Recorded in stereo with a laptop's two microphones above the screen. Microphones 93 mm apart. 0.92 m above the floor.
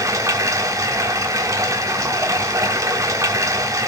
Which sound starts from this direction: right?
Running water, at 0.0 s.